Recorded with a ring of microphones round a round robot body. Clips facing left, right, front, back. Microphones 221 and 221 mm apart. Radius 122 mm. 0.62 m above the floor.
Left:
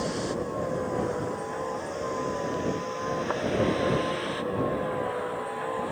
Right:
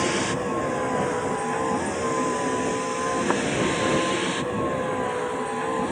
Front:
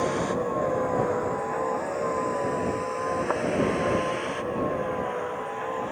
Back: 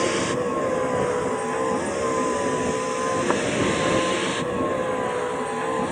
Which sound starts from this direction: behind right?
A vehicle, at 0.0 s.